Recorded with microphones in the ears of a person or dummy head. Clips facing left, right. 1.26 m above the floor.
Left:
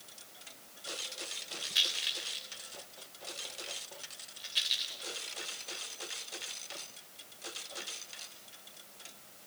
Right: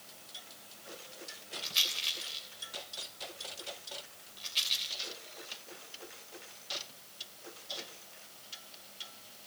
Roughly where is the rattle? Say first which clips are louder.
Left 1 dB; centre.